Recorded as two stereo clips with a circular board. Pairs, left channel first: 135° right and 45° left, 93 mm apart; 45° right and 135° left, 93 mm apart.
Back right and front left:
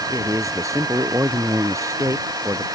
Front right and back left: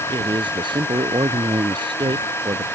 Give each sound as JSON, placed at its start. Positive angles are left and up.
{"t": 0.1, "sound": "a man speaking", "azimuth_deg": 100}